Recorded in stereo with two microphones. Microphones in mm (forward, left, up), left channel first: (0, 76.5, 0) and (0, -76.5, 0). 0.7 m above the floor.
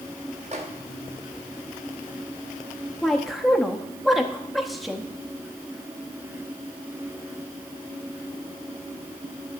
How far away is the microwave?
About 0.9 m.